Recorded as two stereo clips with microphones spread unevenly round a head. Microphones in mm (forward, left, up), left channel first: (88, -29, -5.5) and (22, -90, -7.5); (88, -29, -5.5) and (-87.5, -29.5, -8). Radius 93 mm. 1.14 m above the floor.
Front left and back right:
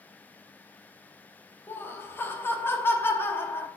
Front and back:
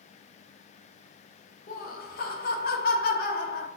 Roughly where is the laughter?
Ahead.